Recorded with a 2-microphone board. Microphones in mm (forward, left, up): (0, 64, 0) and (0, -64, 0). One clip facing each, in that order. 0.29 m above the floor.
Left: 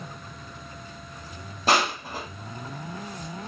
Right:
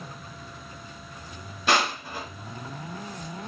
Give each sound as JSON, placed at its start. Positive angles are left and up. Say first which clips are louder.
{"t": 1.7, "sound": "crushing", "louder": "left 1 dB", "side_deg": 40, "distance_m": 1.6}